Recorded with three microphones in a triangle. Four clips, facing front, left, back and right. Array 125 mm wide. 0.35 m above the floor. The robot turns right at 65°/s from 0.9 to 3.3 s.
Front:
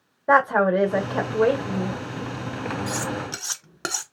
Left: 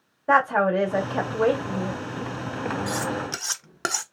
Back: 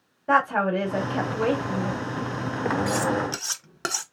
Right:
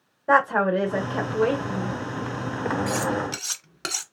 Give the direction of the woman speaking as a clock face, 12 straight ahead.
12 o'clock.